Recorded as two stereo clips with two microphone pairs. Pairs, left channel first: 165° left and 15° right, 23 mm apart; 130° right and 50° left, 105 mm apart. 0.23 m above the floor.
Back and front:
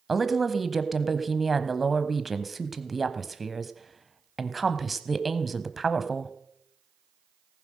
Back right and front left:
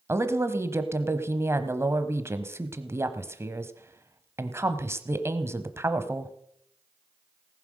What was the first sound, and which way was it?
A woman speaking, 75° left.